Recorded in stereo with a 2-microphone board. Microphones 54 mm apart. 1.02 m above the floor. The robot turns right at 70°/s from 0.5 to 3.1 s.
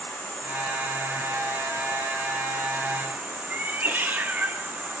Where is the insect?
40° left, 3 m; by 5.0 s 140° right, 3 m.